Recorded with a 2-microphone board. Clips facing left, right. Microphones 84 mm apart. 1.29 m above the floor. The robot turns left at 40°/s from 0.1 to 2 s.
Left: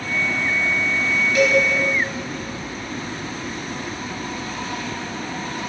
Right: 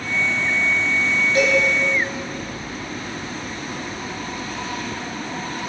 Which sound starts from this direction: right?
A cowbell, at 1.4 s.